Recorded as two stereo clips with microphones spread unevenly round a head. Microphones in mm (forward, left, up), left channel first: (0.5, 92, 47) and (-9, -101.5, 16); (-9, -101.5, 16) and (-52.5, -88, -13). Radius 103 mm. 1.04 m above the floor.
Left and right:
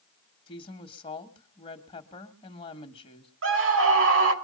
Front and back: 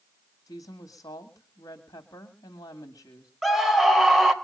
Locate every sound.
0.5 s a woman speaking: 25° left, 1.8 m
3.4 s a scream: 110° right, 4.5 m